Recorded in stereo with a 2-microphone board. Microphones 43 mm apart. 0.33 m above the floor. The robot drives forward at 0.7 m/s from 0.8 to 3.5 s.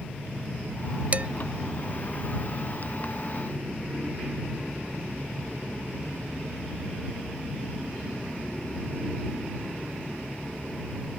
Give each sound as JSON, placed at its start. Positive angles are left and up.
{"t": 1.1, "sound": "dishes clattering", "side_deg": -35}